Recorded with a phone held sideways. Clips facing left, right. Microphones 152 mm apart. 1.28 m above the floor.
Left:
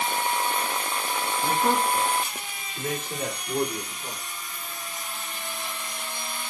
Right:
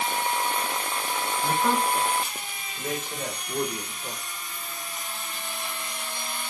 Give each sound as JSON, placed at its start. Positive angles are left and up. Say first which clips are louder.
{"t": 1.4, "sound": "a man speaking", "louder": "left 1 dB", "side_deg": 50, "distance_m": 2.5}